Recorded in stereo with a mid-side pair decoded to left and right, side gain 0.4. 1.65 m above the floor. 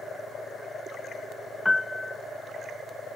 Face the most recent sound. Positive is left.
turn(degrees=15)